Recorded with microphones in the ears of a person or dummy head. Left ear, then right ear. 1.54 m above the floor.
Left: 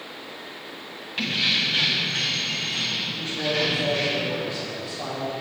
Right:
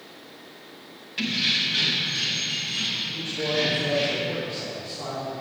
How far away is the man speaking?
About 3.5 m.